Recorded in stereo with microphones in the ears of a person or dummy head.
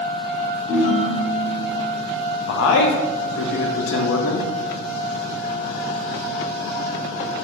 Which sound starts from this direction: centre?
A ringtone, at 0.7 s.